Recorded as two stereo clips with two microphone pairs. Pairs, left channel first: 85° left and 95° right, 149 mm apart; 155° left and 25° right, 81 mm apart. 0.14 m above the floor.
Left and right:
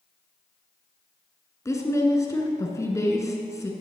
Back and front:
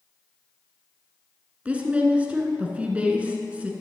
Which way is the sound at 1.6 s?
30° left.